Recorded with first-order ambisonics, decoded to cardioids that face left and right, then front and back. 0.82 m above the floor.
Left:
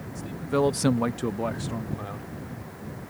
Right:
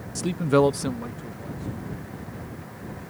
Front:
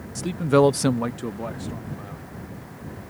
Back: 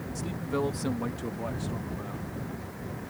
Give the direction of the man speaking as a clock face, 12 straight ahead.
2 o'clock.